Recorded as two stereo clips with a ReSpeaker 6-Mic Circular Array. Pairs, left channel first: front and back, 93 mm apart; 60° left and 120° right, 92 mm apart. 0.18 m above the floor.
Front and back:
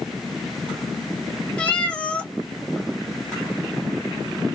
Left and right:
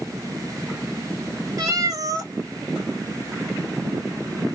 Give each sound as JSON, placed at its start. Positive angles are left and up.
{"t": 1.6, "sound": "a cat meowing", "azimuth_deg": -75, "distance_m": 0.9}